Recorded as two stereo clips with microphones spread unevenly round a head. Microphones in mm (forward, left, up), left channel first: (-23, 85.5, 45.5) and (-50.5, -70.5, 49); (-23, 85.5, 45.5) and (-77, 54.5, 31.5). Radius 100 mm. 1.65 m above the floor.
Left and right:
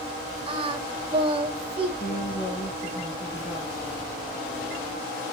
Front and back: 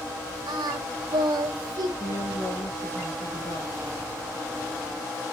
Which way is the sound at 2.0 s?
30° left.